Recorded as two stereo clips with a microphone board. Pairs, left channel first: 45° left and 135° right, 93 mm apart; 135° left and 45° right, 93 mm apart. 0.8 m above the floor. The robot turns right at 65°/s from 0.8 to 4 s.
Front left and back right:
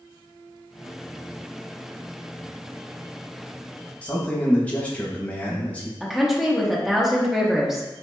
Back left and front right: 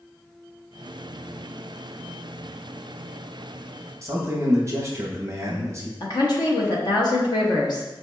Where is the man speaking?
20° right, 0.7 m.